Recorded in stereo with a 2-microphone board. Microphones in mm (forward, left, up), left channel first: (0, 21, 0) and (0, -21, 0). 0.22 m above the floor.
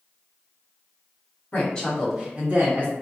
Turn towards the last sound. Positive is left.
turn(degrees=-45)  # may be behind; listen again after turning